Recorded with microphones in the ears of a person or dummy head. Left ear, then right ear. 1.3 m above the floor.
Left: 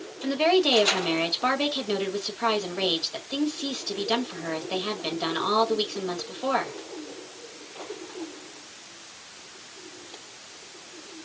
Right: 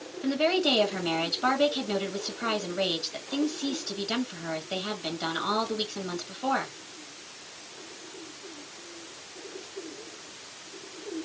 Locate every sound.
0.2 s a woman speaking: 25° left (ahead or behind), 1.5 m